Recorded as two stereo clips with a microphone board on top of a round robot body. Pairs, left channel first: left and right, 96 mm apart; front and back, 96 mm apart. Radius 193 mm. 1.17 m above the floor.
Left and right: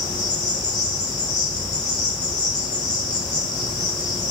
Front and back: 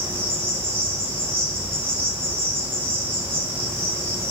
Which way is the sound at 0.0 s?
120° left.